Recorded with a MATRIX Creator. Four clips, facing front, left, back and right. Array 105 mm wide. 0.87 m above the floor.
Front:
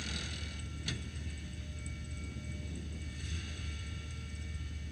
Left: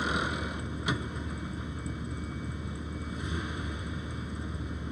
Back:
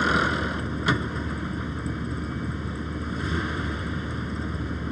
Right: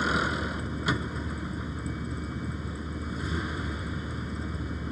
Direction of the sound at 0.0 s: 165° right.